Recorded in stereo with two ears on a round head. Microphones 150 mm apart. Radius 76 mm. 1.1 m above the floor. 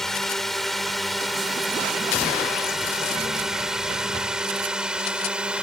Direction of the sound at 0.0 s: Centre (ahead or behind).